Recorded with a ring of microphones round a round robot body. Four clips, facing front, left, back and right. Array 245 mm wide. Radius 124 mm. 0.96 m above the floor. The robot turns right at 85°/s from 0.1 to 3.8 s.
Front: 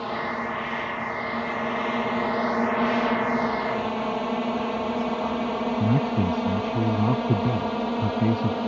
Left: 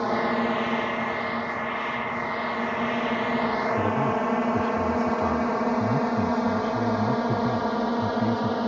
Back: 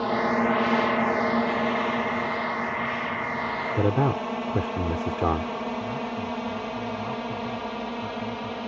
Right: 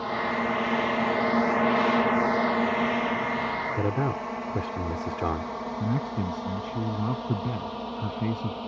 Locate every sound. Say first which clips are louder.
0.0 s a drone: left 4 dB, back 5 dB; 125° left; by 8.7 s 55° left
3.8 s a man speaking: left 4 dB, back 3 dB; 170° right; by 5.5 s 165° right
5.8 s a man speaking: left 6 dB, front 7 dB; 5° right